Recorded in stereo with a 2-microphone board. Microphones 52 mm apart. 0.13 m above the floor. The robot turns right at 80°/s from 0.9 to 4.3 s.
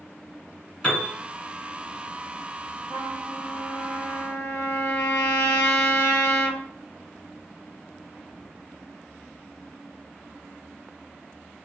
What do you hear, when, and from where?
0.8 s a piano: 20° left (ahead or behind), 1.6 m
2.9 s a trumpet: 5° left, 1.5 m; by 6.6 s 120° left, 1.5 m